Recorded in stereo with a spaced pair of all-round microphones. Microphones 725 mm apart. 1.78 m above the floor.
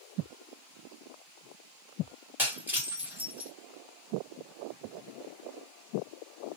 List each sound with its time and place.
2.4 s breaking glass: 5° right (ahead or behind), 1.7 m